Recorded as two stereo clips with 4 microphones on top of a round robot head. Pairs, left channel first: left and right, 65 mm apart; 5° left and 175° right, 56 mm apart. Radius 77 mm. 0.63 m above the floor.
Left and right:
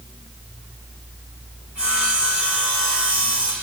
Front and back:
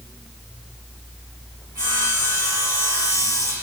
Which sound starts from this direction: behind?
Sawing, at 1.8 s.